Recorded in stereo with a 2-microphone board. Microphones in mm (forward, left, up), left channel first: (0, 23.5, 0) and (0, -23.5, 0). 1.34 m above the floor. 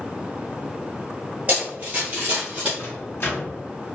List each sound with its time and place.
1.5 s running footsteps: 30° right (ahead or behind), 1.8 m; by 2.7 s 25° right (ahead or behind), 2.5 m
2.8 s a microwave: 50° left (ahead or behind), 1.5 m